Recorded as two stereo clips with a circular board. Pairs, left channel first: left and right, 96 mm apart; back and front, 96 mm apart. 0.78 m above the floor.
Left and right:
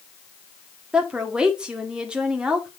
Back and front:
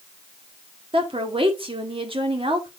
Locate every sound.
0.9 s a woman speaking: 10° right, 1.9 m